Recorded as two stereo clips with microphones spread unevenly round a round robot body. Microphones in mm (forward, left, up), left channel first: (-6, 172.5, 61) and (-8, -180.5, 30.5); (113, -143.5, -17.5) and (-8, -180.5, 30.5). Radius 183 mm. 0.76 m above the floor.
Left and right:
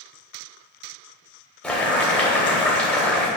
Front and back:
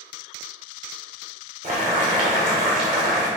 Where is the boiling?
175° left, 0.7 m.